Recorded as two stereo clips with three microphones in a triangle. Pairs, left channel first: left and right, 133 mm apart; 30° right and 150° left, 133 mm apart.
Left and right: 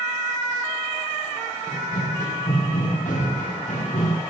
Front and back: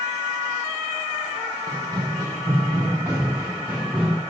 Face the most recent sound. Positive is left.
turn(degrees=70)